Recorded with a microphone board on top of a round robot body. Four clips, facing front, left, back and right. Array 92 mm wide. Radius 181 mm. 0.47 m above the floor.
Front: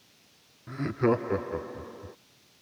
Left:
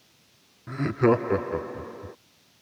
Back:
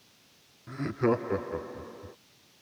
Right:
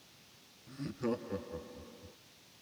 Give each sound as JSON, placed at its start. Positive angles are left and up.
{"t": 0.7, "sound": "laughter", "azimuth_deg": 85}